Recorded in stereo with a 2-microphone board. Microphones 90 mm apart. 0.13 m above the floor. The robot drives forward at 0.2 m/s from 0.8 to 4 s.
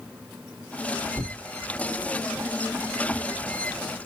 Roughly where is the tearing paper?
Right.